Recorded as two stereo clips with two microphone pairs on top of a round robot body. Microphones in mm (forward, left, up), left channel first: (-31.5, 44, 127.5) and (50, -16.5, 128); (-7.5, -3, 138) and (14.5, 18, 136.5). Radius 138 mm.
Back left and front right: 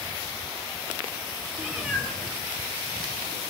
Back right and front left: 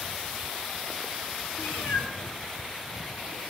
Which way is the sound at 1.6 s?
130° right.